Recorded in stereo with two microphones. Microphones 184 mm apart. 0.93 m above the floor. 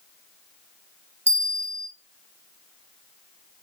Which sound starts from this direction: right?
A bell, at 1.3 s.